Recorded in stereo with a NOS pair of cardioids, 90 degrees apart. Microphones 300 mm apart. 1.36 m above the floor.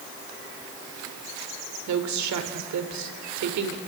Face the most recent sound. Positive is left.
turn(degrees=-70)